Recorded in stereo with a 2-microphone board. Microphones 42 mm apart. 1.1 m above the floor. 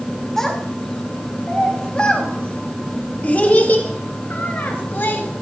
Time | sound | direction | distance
0.4 | a child speaking | 10° left (ahead or behind) | 3 m